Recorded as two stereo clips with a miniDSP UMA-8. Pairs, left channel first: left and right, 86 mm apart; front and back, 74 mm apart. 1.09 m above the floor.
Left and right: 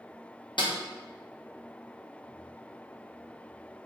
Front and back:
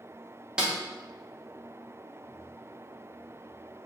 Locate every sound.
0.6 s a snare drum: 100° left, 0.9 m